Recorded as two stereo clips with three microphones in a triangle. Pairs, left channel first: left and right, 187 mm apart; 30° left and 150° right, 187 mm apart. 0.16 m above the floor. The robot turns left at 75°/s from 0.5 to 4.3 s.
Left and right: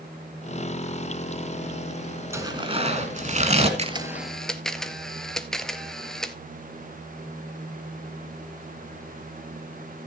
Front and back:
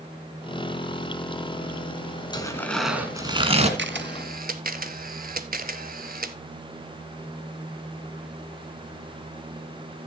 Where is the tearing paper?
25° right, 1.8 m; by 3.7 s 125° right, 1.8 m.